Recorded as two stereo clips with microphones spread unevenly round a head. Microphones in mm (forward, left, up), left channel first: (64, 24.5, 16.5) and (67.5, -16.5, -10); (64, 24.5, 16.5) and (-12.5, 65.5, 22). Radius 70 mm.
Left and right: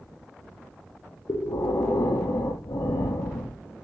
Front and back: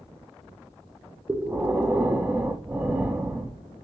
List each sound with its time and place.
1.3 s breathing: 80° left, 0.5 m